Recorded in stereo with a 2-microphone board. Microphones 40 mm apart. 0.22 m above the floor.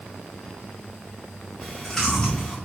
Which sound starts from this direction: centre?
Chewing, at 1.6 s.